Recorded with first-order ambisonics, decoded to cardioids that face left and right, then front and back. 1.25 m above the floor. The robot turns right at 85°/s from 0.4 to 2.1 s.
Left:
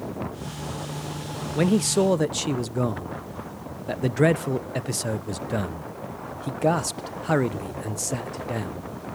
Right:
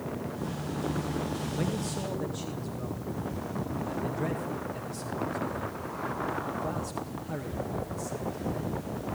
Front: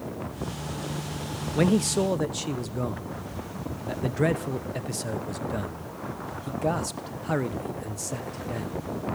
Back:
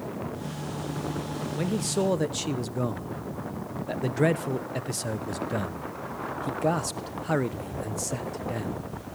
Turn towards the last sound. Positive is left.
turn(degrees=100)